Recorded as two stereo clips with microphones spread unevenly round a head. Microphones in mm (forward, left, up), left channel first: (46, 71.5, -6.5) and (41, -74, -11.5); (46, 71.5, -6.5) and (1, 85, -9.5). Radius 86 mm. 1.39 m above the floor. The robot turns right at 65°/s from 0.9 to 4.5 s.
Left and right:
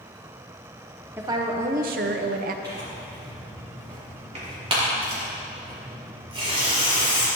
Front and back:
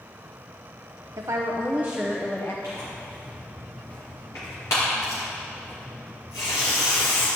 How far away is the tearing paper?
About 4 m.